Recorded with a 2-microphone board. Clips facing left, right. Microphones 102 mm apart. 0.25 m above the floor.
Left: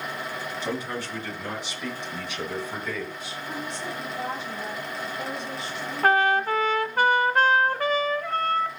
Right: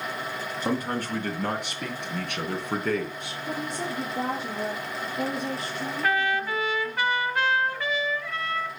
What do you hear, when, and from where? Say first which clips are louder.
0.6 s a man speaking: right 5 dB; 45° right (ahead or behind), 2.5 m; by 3.4 s 65° right (ahead or behind), 3 m
3.5 s a woman speaking: right 3 dB; 75° right (ahead or behind), 5.5 m
6.0 s a trumpet: left 6 dB; 45° left (ahead or behind), 1.0 m